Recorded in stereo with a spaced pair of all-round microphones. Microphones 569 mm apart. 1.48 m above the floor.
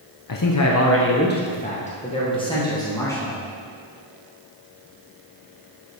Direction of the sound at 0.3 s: 40° left (ahead or behind).